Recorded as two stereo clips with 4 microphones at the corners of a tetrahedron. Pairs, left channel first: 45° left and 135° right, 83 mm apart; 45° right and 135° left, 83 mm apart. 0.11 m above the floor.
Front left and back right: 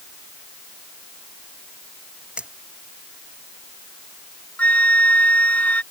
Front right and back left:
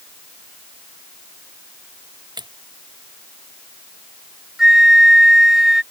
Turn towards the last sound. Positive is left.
turn(degrees=65)